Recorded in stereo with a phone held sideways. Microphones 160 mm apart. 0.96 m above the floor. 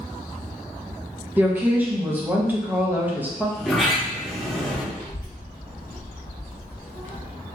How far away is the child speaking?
About 1.0 m.